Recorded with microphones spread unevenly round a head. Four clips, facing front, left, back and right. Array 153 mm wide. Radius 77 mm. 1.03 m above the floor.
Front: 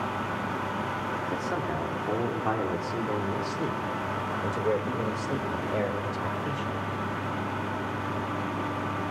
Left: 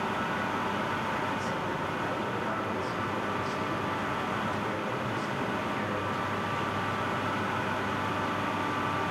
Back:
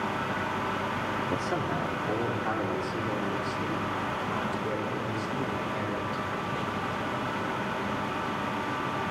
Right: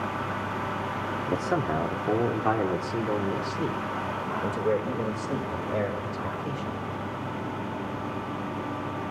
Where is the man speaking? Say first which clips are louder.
Right 5 dB, even; 100° right, 2.5 m; by 6.8 s 45° right, 5.5 m.